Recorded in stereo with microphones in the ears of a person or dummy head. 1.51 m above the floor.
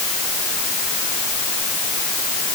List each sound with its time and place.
Only background noise.